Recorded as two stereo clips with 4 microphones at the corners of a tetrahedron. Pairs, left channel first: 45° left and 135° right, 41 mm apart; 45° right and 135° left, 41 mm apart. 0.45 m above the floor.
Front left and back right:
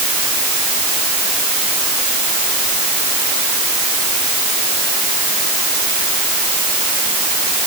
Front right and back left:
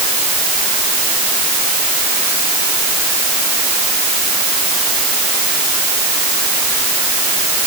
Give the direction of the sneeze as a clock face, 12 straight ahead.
No sneeze in this recording.